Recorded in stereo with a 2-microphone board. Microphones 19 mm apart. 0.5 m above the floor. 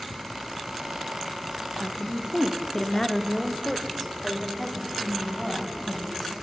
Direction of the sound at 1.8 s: 20° left (ahead or behind).